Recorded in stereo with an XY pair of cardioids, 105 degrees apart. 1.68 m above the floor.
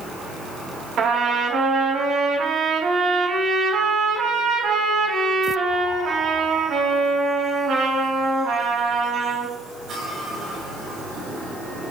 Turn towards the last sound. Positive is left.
turn(degrees=-60)